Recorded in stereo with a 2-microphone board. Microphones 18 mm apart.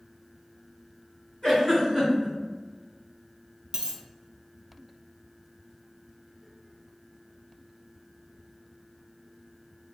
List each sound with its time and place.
1.4 s a giggle: 40° left (ahead or behind), 2.0 m
3.7 s a dropped coin: 45° right (ahead or behind), 0.7 m